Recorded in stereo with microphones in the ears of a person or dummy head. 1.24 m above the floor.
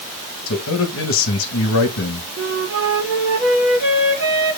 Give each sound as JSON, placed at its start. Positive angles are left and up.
{"t": 0.5, "sound": "a man speaking", "side_deg": 70, "distance_m": 1.7}
{"t": 2.4, "sound": "a flute", "side_deg": -55, "distance_m": 3.5}